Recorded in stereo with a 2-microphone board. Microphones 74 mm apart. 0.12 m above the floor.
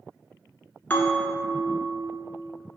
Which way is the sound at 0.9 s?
25° left (ahead or behind).